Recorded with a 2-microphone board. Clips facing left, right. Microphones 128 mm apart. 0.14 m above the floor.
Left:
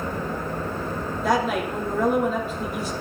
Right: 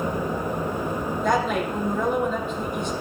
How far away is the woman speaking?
About 5 m.